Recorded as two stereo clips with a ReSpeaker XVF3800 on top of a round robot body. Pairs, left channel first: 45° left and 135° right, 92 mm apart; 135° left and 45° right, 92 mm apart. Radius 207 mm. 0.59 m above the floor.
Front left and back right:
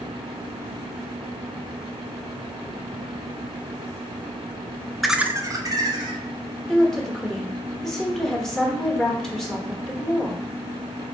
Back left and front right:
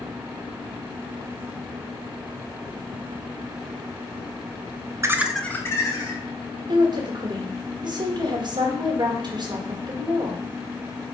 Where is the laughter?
45° right, 0.6 m; by 6.2 s straight behind, 1.1 m.